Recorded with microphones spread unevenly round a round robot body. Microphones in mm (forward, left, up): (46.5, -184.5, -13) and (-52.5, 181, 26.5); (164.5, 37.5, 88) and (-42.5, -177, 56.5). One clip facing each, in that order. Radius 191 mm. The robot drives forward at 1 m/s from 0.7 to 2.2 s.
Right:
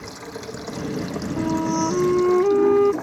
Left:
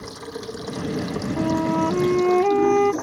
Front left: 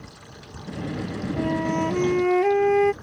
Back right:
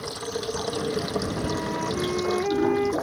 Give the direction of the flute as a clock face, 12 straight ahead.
11 o'clock.